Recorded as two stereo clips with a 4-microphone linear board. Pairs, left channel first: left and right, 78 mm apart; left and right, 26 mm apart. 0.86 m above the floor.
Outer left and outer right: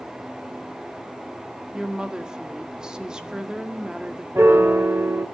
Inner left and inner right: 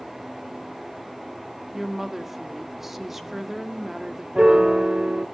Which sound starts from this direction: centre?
A woman speaking, at 1.7 s.